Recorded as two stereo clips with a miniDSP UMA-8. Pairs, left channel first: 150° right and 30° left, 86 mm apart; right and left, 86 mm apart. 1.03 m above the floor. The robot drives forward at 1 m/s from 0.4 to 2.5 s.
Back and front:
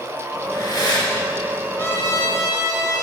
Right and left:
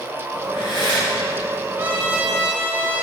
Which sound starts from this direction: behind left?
A trumpet, at 1.8 s.